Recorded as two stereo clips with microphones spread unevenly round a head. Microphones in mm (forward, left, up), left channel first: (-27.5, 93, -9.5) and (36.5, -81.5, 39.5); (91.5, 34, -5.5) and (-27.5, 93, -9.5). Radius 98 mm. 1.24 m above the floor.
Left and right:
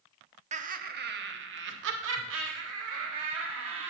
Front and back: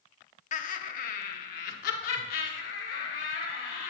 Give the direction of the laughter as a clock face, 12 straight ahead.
12 o'clock.